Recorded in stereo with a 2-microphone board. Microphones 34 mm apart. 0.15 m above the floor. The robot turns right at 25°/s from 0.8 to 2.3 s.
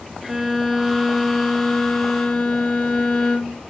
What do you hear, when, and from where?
0.2 s a violin: 5° right, 1.0 m; by 3.6 s 30° left, 1.0 m